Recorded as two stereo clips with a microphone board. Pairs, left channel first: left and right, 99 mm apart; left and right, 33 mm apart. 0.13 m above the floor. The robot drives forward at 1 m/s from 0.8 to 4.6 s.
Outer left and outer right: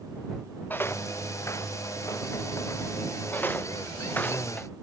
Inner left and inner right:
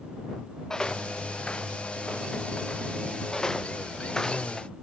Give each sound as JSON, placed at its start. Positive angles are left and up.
{"t": 0.7, "sound": "footsteps", "side_deg": 20}
{"t": 3.3, "sound": "footsteps", "side_deg": 20}